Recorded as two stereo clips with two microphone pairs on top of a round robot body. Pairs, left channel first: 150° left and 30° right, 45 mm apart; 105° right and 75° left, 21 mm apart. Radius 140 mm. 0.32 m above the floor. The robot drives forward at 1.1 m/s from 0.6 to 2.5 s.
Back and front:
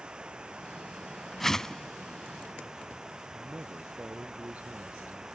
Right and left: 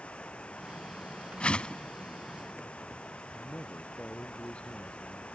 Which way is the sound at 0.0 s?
105° right.